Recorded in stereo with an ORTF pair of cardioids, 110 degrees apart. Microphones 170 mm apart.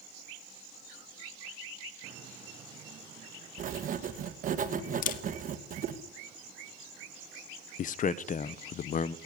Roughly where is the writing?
Ahead right.